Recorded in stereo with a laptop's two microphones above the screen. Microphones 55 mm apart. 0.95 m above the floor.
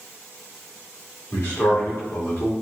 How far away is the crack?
I don't hear a crack.